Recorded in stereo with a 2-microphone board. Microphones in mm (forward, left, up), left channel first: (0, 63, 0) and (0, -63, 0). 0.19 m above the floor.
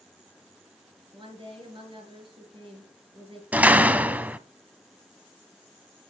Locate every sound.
1.1 s a woman speaking: 40° right (ahead or behind), 3.5 m
3.5 s a door slam: 10° right (ahead or behind), 0.7 m